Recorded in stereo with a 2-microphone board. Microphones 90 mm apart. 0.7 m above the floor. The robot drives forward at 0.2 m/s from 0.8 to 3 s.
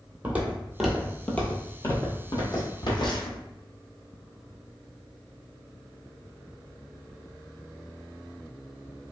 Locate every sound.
0.2 s footsteps: 20° right (ahead or behind), 0.9 m; by 3.4 s 60° left (ahead or behind), 1.3 m